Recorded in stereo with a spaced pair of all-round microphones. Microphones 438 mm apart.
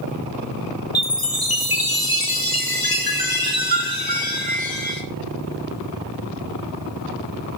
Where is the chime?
55° left (ahead or behind), 1.2 m.